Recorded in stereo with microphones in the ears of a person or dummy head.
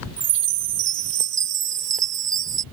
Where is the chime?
15° right (ahead or behind).